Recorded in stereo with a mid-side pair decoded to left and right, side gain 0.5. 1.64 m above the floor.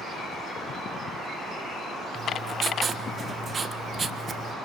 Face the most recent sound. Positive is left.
turn(degrees=-35)